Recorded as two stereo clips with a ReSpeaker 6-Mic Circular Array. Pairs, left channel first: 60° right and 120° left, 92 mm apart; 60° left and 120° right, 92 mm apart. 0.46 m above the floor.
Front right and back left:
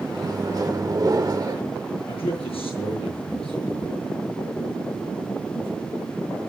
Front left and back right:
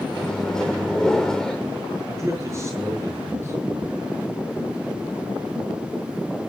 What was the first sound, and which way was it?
A microwave, 140° left.